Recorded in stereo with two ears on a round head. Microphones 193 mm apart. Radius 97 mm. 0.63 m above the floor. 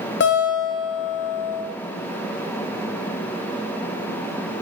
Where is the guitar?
50° left (ahead or behind), 0.5 m.